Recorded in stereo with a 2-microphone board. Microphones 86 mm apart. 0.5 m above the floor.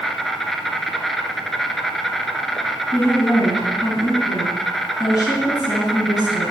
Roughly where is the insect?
Centre.